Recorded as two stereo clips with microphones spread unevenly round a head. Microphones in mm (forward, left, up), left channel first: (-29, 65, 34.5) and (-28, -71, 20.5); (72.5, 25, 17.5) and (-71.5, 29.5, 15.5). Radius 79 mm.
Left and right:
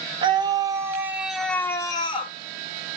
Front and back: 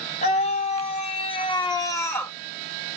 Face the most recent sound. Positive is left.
turn(degrees=75)